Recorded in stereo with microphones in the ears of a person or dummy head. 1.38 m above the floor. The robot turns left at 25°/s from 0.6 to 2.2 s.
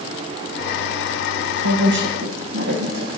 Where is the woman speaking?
70° right (ahead or behind), 1.0 m; by 3.1 s 55° right (ahead or behind), 1.0 m.